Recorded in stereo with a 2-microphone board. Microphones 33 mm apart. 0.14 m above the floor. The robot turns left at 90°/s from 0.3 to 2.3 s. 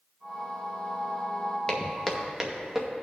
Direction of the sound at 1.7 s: 25° left (ahead or behind).